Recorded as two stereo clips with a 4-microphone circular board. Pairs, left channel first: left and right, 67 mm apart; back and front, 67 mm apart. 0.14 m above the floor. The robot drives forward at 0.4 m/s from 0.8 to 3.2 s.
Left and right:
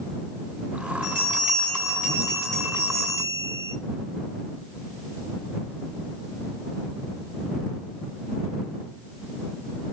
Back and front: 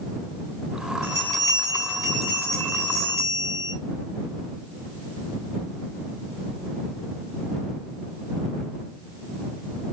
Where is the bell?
35° right, 2.5 m; by 3.8 s 50° right, 2.0 m.